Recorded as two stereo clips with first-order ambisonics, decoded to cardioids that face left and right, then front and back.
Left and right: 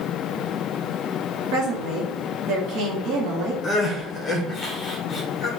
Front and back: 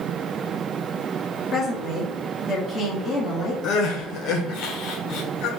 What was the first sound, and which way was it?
A woman speaking, 70° right.